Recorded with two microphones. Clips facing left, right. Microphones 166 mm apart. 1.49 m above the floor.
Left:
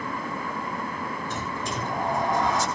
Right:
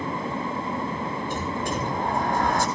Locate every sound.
1.3 s a sliding door: 55° right (ahead or behind), 7.5 m